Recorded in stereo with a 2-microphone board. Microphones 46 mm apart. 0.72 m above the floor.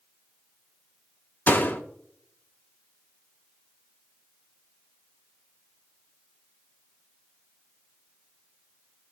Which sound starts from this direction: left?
A door slam, at 1.5 s.